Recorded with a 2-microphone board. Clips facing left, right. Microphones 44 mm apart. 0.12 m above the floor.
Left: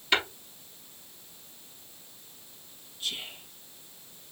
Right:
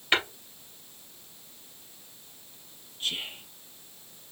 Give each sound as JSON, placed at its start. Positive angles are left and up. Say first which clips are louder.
{"t": 0.1, "sound": "tapping", "louder": "right 1 dB", "side_deg": -25, "distance_m": 3.0}
{"t": 3.0, "sound": "whispering", "louder": "right 3 dB", "side_deg": -40, "distance_m": 2.5}